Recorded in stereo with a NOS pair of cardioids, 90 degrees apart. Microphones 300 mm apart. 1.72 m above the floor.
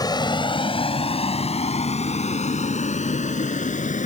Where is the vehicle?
15° left; by 4.1 s 25° left.